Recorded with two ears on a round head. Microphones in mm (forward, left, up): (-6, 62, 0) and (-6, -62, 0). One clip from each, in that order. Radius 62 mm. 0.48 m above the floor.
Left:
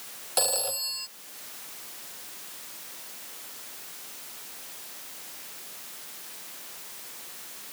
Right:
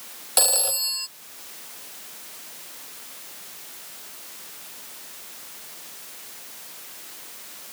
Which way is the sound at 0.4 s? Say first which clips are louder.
Right 5 dB; 20° right (ahead or behind).